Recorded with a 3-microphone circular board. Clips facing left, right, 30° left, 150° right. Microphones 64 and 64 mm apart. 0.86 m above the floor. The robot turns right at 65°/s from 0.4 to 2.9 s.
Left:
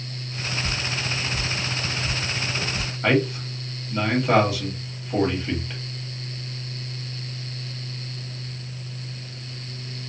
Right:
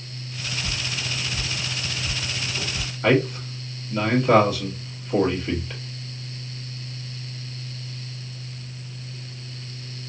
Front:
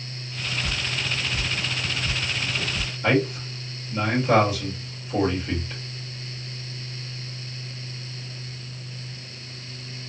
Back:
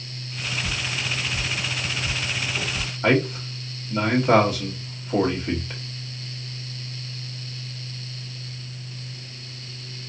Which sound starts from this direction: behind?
A man speaking, at 3.0 s.